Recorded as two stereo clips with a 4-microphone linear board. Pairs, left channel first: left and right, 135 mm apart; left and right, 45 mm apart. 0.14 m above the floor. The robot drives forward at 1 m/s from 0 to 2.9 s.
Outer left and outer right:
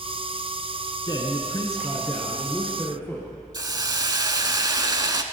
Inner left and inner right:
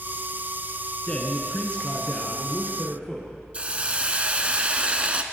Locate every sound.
1.1 s a man speaking: 30° left (ahead or behind), 1.3 m; by 3.3 s 20° left (ahead or behind), 2.5 m
3.5 s a hiss: 30° right (ahead or behind), 0.6 m